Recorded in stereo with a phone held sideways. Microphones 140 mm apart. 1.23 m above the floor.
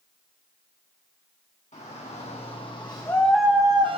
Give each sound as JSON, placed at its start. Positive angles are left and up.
{"t": 1.7, "sound": "a shout", "side_deg": 55, "distance_m": 1.6}